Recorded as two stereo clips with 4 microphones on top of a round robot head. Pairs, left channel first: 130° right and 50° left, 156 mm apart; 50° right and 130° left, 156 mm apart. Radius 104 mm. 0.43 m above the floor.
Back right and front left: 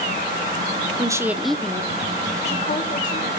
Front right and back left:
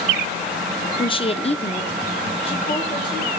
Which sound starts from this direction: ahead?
A woman speaking, at 1.0 s.